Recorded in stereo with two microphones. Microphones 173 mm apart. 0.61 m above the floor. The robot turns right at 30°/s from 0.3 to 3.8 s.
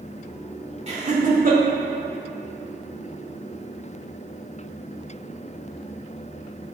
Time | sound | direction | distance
0.9 | laughter | 40° right (ahead or behind) | 1.5 m